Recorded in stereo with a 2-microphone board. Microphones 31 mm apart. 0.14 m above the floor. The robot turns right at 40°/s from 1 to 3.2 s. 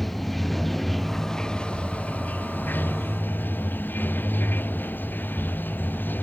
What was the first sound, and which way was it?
Running water, 5° left.